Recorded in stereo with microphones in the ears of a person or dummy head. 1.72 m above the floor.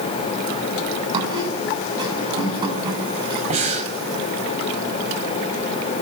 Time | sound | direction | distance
1.1 | a squeak | 30° right (ahead or behind) | 7 m
3.5 | breathing | 35° right (ahead or behind) | 4.5 m